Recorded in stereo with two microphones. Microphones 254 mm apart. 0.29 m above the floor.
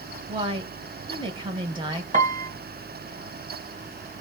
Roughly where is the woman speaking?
Centre.